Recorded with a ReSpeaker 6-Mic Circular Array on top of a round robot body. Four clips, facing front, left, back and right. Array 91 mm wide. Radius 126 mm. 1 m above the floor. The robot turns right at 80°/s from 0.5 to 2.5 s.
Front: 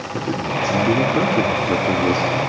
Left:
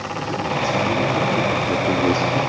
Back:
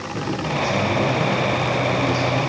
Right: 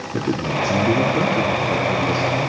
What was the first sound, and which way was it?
A man speaking, 70° right.